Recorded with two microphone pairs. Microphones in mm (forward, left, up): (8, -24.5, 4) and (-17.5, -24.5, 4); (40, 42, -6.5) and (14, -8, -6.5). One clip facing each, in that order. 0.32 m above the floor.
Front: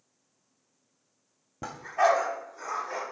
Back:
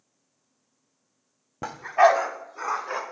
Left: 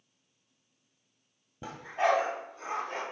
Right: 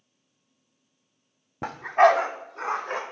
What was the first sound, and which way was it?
A dog barking, 115° right.